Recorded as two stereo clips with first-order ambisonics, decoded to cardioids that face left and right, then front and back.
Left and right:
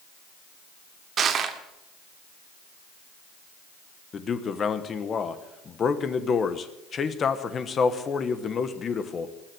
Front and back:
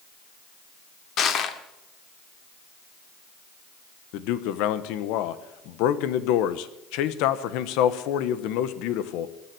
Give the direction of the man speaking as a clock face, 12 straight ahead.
11 o'clock.